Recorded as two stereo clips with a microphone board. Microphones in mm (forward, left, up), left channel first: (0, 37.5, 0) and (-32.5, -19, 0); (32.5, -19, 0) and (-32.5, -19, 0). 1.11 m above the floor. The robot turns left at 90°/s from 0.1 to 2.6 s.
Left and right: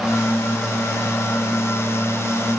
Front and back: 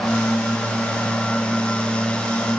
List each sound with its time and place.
Only background noise.